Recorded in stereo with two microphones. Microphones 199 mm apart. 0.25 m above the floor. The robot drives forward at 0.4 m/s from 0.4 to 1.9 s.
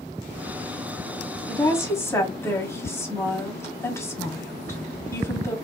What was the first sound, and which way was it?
A woman speaking, 15° left (ahead or behind).